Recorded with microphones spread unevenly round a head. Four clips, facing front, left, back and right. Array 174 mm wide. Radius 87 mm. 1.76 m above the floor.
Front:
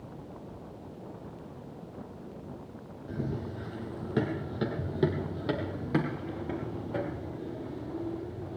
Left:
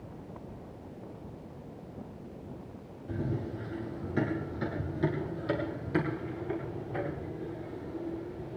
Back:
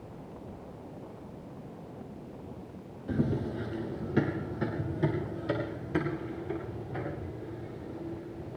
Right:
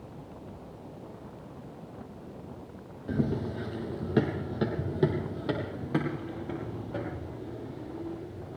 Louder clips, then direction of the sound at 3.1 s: Right 5 dB, back 5 dB; 105° right.